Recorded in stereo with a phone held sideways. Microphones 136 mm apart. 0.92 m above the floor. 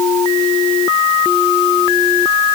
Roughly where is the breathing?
No breathing in this recording.